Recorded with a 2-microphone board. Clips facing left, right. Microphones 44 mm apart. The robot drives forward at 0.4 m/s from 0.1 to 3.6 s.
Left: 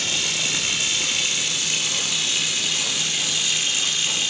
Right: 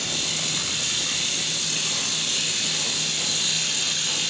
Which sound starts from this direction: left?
Running water, at 0.0 s.